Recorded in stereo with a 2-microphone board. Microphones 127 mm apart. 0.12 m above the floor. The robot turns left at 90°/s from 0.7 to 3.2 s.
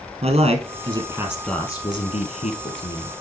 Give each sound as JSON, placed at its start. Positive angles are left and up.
{"t": 0.2, "sound": "a man speaking", "azimuth_deg": -110, "distance_m": 2.5}